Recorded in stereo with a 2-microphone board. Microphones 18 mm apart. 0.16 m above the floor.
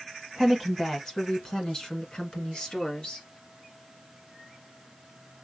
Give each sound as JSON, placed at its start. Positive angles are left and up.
{"t": 0.4, "sound": "a woman speaking", "side_deg": 15, "distance_m": 1.2}